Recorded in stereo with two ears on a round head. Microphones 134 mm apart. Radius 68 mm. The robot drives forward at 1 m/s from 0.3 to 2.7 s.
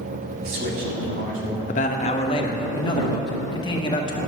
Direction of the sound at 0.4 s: 75° right (ahead or behind).